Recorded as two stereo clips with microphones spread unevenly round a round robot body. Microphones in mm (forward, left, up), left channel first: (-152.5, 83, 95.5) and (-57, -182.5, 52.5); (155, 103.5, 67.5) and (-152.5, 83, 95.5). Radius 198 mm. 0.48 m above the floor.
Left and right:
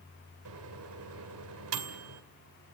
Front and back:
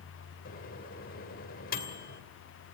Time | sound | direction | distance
0.5 | a microwave | 55° right | 2 m